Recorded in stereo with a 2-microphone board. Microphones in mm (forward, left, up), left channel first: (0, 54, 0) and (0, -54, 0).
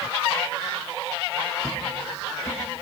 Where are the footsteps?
10° left (ahead or behind), 3 m; by 2.6 s 25° left (ahead or behind), 3 m.